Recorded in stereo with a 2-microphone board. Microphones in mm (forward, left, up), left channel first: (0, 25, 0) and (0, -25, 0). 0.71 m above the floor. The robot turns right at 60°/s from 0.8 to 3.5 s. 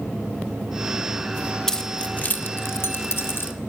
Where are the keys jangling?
10° left (ahead or behind), 0.8 m; by 3.5 s 45° left (ahead or behind), 0.8 m.